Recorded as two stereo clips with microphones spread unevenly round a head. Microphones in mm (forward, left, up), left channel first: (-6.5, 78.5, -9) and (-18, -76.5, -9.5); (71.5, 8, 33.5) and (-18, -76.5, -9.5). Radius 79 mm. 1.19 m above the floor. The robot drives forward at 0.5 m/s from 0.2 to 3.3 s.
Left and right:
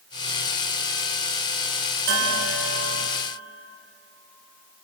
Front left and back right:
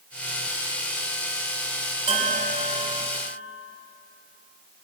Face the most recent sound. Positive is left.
turn(degrees=-100)